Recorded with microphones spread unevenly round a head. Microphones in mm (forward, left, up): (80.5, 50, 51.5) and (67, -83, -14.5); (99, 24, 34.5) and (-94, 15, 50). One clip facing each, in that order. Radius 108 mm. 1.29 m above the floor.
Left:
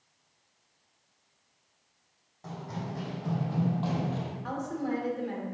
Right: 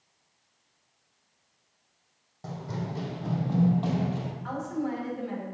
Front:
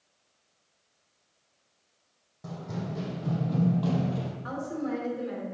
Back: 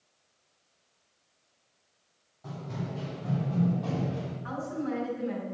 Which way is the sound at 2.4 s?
35° right.